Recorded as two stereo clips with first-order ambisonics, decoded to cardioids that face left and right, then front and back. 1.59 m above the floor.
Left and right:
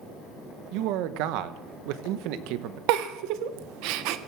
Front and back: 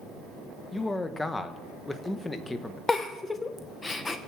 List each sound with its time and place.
0.7 s a man speaking: 80° right, 1.1 m
2.9 s a giggle: 75° right, 0.9 m